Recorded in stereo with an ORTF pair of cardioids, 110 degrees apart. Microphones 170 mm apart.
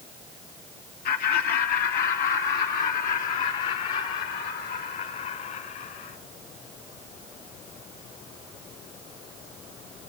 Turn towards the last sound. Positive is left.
turn(degrees=60)